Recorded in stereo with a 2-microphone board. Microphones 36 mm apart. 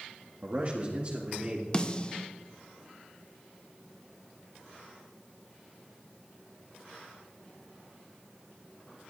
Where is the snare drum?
25° left (ahead or behind), 0.9 m.